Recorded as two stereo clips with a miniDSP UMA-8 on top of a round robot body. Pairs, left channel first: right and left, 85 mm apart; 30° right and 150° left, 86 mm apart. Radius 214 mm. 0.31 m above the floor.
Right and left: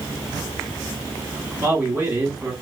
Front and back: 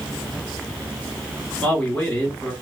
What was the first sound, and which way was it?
A man speaking, 35° left.